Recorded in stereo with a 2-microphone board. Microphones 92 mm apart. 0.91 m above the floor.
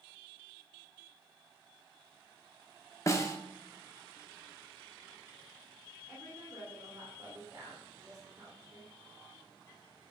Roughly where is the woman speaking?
Right.